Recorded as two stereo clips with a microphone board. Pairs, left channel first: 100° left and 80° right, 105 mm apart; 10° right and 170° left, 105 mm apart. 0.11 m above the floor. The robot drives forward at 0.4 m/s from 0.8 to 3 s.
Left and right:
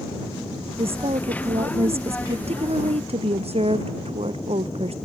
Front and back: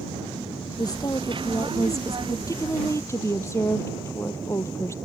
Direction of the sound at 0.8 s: 60° right.